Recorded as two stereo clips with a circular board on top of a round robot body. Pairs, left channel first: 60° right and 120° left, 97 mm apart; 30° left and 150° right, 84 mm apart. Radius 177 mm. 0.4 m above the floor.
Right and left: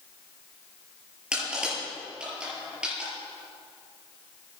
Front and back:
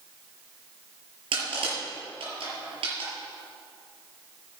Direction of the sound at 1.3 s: 160° right.